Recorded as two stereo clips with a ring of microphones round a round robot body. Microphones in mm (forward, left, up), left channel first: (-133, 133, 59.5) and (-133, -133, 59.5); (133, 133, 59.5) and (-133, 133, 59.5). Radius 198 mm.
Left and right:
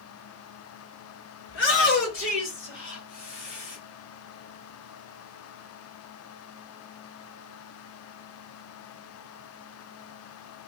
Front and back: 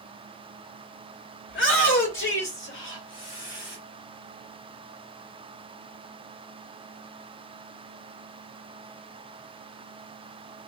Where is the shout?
45° left, 1.8 m.